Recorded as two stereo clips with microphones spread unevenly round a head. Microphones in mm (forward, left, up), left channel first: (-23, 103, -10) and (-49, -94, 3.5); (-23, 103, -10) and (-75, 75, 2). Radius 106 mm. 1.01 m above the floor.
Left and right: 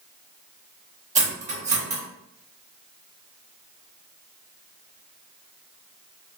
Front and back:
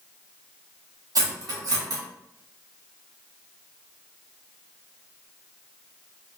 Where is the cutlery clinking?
155° right, 1.1 m.